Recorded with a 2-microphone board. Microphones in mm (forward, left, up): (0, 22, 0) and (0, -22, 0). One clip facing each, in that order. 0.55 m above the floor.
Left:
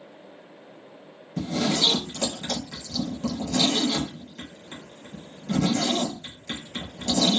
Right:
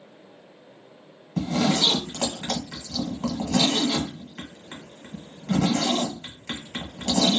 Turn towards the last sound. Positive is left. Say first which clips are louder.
# right 2 dB
turn(degrees=-75)  # may be behind; listen again after turning